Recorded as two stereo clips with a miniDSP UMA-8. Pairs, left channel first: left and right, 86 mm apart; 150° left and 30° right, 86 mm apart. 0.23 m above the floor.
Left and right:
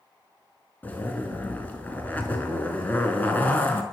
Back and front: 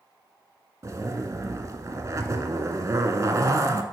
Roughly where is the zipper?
Ahead.